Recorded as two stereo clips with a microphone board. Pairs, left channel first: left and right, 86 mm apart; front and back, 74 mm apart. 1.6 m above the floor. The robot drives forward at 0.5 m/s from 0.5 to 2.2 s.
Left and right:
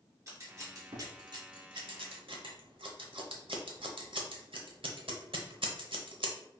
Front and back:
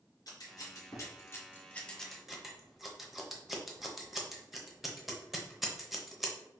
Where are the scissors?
35° right, 1.1 m; by 6.3 s 90° right, 0.6 m.